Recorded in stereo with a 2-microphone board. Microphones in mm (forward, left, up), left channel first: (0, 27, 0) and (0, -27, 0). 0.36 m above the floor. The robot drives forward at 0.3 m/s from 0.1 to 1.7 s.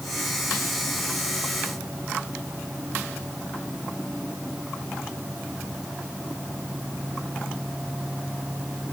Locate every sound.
Only background noise.